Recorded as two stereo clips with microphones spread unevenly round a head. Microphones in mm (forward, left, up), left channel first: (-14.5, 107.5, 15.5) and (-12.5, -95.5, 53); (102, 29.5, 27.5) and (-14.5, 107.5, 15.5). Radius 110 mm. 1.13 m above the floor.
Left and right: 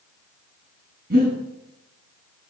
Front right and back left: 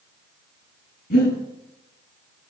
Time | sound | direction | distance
1.1 | breathing | 45° right | 9 m